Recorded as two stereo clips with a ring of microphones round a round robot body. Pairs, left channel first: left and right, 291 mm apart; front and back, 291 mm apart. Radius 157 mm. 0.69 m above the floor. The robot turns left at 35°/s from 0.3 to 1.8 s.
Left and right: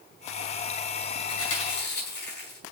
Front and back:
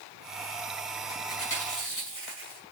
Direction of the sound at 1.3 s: 55° left.